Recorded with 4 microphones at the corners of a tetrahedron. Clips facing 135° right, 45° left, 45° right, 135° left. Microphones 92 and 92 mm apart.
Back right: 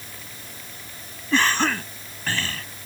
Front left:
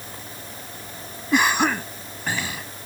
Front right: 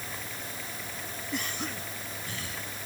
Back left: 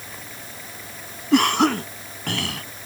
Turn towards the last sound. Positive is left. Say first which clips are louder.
# front left 2 dB, back left 19 dB
turn(degrees=125)